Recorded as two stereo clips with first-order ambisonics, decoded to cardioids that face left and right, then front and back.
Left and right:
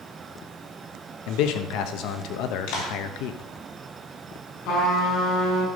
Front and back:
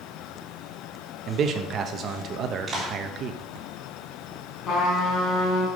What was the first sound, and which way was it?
A man speaking, 120° left.